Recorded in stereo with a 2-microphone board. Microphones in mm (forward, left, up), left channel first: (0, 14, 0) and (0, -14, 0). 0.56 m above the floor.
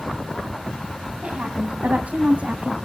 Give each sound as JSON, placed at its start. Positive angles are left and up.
{"t": 1.2, "sound": "a woman speaking", "side_deg": -75, "distance_m": 4.5}